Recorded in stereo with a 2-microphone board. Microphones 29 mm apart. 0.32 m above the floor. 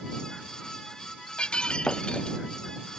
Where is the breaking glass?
35° left (ahead or behind).